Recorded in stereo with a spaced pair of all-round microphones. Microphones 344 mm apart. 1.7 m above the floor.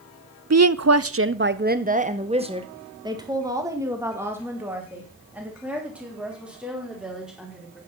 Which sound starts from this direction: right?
A woman speaking, at 0.5 s.